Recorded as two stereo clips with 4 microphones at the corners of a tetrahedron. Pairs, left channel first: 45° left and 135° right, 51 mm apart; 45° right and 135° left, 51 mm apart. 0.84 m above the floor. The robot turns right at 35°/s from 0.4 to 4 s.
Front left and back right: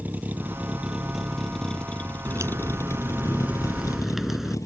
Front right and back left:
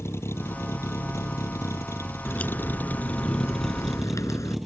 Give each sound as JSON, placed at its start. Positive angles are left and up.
{"t": 0.0, "sound": "a vehicle", "azimuth_deg": -75}
{"t": 2.2, "sound": "a crack", "azimuth_deg": -110}